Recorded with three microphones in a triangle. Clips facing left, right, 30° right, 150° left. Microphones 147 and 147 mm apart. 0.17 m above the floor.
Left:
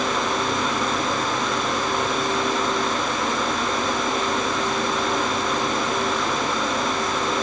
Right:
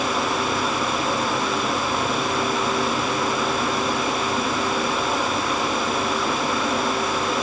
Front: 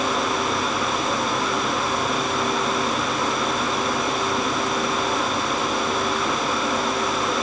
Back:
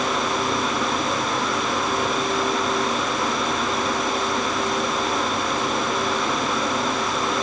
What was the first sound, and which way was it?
Only background noise.